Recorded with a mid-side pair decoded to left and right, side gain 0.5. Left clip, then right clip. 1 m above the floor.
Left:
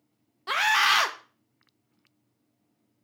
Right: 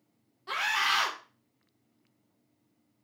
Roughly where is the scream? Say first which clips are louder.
Left 6 dB; ahead left.